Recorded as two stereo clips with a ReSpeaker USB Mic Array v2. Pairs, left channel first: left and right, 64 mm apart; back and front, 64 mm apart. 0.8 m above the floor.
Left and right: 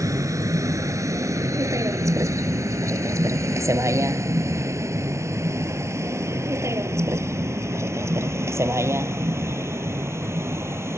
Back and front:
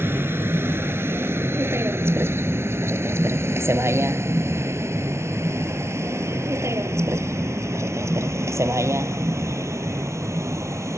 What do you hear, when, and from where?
0.0 s a vehicle: 55° right; by 11.0 s 45° right